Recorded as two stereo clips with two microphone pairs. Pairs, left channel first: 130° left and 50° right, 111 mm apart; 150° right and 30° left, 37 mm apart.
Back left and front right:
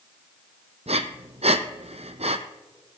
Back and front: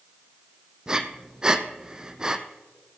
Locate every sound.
0.9 s breathing: 35° right, 0.8 m